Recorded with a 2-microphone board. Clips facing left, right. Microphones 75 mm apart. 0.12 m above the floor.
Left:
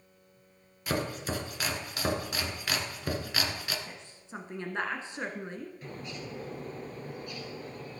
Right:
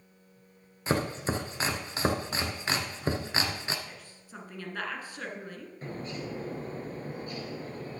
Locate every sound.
0.9 s chopping: 30° right (ahead or behind), 0.8 m
3.9 s a woman speaking: 25° left (ahead or behind), 1.1 m
5.8 s a bird: 35° right (ahead or behind), 1.1 m